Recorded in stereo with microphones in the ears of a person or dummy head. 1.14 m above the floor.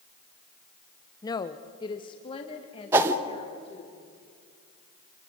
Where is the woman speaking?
15° left (ahead or behind), 0.9 m; by 3.9 s 25° left (ahead or behind), 4.5 m.